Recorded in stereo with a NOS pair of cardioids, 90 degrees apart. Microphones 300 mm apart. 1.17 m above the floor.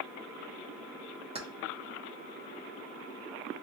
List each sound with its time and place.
1.4 s keys jangling: 20° right, 0.8 m